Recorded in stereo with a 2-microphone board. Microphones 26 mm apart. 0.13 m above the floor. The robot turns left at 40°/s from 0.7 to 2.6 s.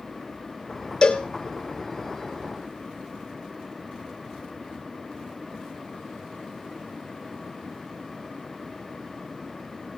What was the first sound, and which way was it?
A cowbell, 25° left (ahead or behind).